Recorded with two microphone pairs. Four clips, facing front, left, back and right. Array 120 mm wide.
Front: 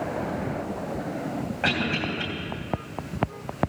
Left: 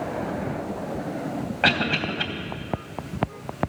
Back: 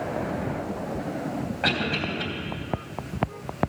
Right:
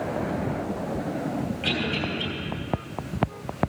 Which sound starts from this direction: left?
A cough, at 1.6 s.